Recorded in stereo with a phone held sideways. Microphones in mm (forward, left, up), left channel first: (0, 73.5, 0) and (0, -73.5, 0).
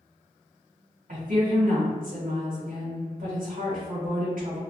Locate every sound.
1.1 s a woman speaking: 60° right (ahead or behind), 1.8 m